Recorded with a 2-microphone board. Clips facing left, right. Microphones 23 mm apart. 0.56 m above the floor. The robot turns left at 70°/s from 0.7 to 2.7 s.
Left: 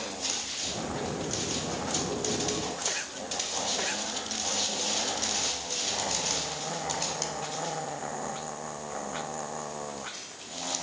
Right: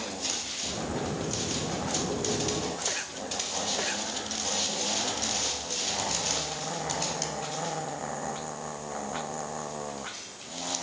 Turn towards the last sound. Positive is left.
No sound to turn to.